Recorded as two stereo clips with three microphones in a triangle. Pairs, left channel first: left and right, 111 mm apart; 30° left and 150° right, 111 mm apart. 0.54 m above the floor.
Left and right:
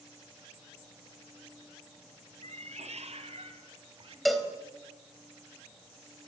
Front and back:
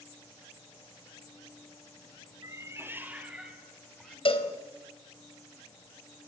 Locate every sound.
2.4 s a cat meowing: 90° right, 2.5 m; by 4.2 s 55° right, 3 m
4.2 s a cowbell: straight ahead, 3 m